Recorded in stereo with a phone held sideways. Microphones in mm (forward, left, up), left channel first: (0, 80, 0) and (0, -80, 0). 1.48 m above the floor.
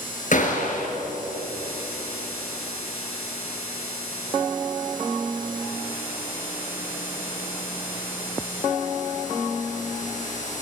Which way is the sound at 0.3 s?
50° left (ahead or behind).